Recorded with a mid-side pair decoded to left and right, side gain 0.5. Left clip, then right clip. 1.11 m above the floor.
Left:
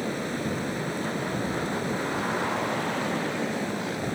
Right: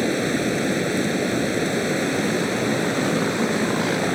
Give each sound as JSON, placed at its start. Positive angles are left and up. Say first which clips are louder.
{"t": 0.0, "sound": "running water", "louder": "right 8 dB", "azimuth_deg": -55}